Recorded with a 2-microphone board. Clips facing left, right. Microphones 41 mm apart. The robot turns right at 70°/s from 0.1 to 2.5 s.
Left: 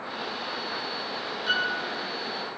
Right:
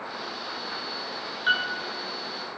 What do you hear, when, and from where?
1.5 s a piano: 40° right (ahead or behind), 0.5 m; by 1.7 s 20° right (ahead or behind), 0.5 m